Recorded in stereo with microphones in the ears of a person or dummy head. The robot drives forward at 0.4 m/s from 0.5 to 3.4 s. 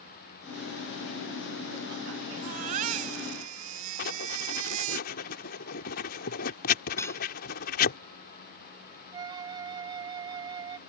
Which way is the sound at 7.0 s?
10° left (ahead or behind).